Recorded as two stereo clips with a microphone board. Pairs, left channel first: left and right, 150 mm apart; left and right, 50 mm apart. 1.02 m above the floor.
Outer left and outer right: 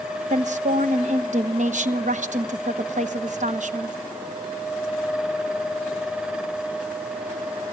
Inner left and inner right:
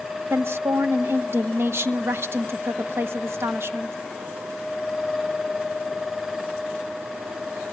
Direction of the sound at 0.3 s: 55° right (ahead or behind).